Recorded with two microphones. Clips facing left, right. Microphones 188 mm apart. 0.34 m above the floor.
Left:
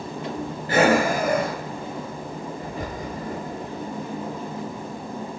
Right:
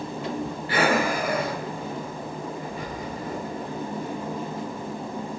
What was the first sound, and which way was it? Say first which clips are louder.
Breathing: left 5 dB; 45° left (ahead or behind).